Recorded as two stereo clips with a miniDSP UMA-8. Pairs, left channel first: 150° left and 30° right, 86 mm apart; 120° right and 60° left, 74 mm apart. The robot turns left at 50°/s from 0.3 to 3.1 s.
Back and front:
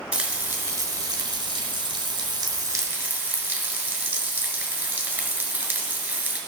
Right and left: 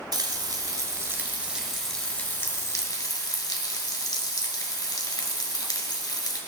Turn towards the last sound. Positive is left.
turn(degrees=-95)